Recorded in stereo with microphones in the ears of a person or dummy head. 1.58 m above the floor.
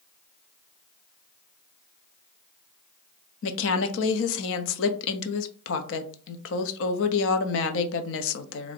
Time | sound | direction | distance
3.4 | a woman speaking | 75° left (ahead or behind) | 0.6 m